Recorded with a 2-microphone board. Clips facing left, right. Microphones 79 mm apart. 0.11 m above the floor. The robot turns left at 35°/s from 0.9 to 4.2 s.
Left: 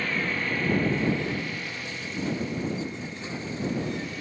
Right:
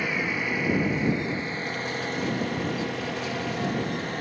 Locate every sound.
0.0 s an engine running: 10° right; by 4.2 s 125° right